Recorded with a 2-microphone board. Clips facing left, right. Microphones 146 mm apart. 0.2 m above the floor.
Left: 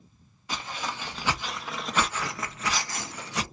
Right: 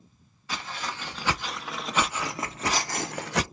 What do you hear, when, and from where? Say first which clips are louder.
0.5 s footsteps: left 1 dB; 15° left (ahead or behind), 1.3 m; by 3.4 s 75° right (ahead or behind), 0.6 m